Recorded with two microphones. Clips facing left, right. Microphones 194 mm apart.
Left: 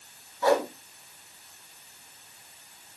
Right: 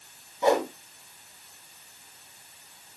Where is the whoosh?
20° right (ahead or behind), 1.5 m.